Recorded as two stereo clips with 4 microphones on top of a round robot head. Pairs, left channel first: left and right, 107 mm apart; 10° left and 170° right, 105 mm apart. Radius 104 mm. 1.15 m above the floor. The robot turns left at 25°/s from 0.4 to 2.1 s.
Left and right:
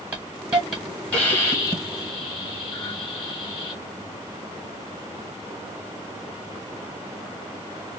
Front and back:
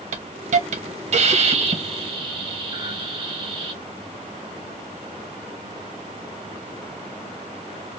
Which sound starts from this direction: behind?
A hiss, at 0.1 s.